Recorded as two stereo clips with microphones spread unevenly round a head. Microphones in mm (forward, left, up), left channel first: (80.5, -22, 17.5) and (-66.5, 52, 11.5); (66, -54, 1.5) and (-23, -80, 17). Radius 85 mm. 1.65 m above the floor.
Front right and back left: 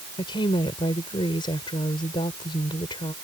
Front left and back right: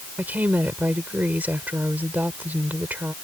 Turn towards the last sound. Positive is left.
turn(degrees=-95)